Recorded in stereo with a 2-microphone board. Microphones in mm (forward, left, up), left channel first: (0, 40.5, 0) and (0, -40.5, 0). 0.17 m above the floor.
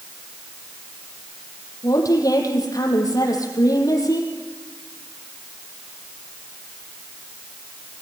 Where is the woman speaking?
45° left (ahead or behind), 5.5 m.